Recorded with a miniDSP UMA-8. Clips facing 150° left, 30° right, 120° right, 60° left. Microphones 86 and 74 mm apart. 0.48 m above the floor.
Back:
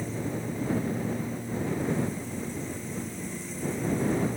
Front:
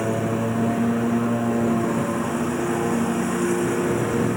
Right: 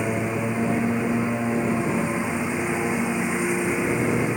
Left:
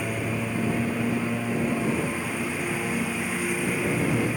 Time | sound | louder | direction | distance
0.0 | a lawn mower | front 10 dB, right 4 dB | 50° right | ?